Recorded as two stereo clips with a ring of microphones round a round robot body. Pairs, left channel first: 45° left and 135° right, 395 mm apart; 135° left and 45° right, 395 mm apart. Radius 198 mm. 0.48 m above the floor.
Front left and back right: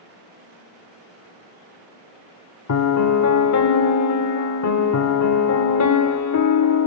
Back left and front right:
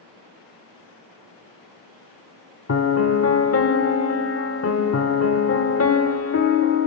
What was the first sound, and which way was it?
A piano, 85° left.